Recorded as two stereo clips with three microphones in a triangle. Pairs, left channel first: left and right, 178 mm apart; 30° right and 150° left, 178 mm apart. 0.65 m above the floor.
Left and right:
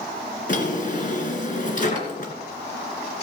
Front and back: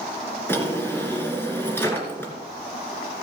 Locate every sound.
0.5 s a drawer: 50° left, 2.5 m